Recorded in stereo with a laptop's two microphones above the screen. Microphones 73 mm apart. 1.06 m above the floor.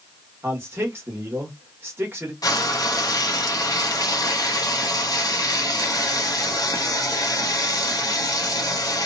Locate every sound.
0.4 s a man speaking: 30° right (ahead or behind), 0.9 m
2.4 s frying: 60° left (ahead or behind), 0.7 m